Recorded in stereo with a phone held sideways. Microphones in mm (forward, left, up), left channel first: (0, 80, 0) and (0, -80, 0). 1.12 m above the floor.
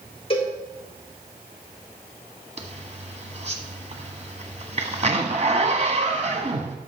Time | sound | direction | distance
0.3 | a cowbell | 35° left (ahead or behind) | 4 m
2.6 | a zipper | 45° right (ahead or behind) | 1.5 m